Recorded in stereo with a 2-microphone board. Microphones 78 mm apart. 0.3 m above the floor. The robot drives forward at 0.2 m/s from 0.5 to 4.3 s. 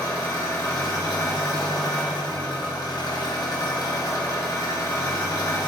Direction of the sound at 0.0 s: 50° left (ahead or behind).